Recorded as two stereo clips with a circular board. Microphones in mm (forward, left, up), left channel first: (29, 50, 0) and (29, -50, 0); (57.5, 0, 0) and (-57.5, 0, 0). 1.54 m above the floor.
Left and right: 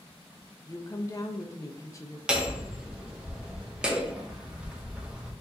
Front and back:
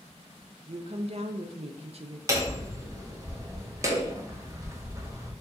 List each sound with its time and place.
0.7 s a woman speaking: 150° left, 0.6 m
2.3 s hammering: 160° right, 0.7 m